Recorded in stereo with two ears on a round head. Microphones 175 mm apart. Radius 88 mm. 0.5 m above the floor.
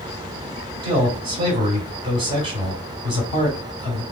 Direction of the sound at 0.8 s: 40° right (ahead or behind).